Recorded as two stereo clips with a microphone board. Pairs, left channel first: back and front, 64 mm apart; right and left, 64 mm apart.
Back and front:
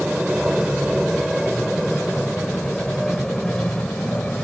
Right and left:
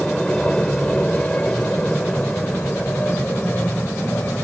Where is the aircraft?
45° right; by 4.4 s 120° right.